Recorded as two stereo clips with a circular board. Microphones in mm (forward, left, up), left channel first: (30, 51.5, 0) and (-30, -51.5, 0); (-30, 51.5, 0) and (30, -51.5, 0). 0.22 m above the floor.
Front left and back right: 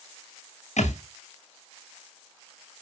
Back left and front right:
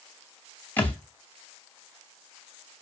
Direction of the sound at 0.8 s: 45° left.